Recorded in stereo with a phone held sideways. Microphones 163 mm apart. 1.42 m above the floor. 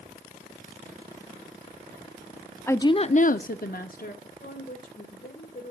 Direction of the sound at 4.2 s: 70° left (ahead or behind).